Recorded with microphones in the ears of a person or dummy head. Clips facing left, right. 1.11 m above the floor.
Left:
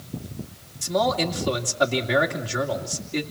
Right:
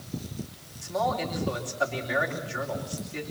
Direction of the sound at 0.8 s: 55° left (ahead or behind).